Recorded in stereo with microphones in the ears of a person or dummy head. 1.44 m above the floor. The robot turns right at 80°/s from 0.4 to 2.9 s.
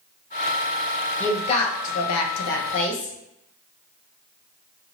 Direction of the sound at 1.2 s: 10° left (ahead or behind).